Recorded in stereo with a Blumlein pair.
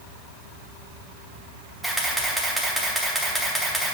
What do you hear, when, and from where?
1.8 s a camera shutter: 5° right, 1.9 m